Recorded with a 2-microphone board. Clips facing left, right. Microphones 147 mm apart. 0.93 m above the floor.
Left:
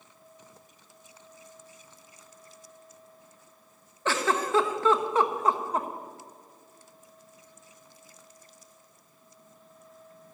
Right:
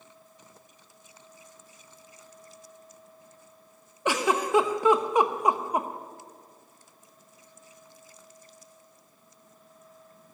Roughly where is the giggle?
Centre.